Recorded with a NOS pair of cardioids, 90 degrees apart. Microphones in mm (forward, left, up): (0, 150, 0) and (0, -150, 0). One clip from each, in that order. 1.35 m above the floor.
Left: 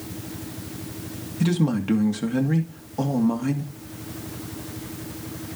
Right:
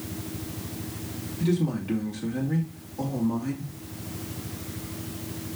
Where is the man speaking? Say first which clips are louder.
Left 3 dB; 60° left, 2.5 m.